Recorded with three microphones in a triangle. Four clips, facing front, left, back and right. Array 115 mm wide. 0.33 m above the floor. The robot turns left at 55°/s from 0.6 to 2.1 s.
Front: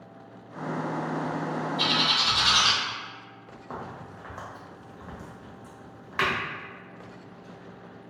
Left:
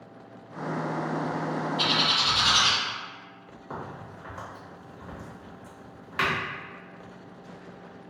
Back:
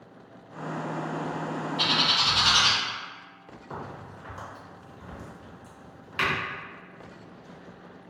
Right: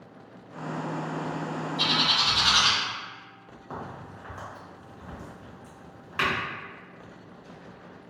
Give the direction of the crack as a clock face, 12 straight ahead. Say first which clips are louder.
Even, front 1 dB; 12 o'clock.